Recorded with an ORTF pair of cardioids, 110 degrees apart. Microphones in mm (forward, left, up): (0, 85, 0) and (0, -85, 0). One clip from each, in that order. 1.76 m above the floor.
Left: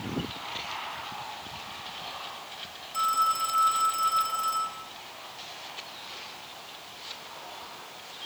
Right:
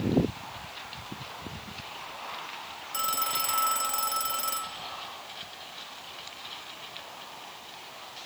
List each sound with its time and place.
2.9 s a phone ringing: 55° right, 2.5 m